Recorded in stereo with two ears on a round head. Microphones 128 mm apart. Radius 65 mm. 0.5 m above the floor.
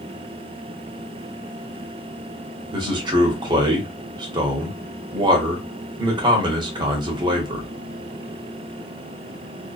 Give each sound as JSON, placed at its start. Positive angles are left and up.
{"t": 2.7, "sound": "a man speaking", "side_deg": -30, "distance_m": 0.9}